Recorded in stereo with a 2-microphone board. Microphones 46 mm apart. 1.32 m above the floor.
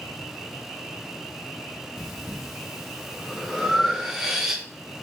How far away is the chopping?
I don't hear chopping.